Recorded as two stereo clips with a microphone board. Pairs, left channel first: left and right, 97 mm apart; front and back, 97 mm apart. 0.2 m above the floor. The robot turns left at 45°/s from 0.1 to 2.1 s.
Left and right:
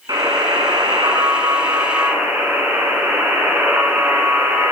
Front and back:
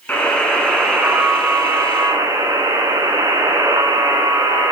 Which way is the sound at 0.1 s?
65° right.